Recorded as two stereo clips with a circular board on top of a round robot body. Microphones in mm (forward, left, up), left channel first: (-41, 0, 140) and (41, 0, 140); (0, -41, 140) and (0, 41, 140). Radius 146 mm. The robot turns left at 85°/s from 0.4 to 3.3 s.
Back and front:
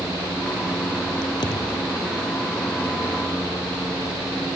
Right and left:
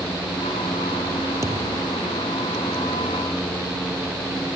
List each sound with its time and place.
1.4 s a thud: 150° left; by 2.0 s 100° left